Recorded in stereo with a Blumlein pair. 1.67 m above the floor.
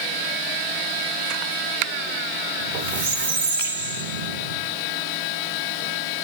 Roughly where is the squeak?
Ahead right.